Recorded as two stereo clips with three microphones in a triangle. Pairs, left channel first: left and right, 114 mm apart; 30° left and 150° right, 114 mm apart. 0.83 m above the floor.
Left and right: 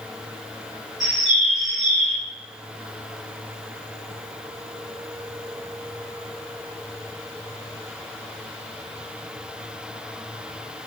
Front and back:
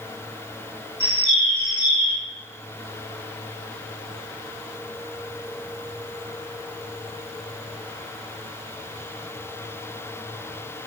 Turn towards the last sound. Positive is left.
turn(degrees=-5)